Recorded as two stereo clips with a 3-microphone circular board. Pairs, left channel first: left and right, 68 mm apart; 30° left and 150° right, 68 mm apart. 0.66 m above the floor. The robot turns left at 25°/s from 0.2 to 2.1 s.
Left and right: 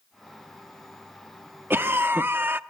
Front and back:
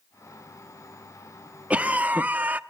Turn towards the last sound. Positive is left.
turn(degrees=-110)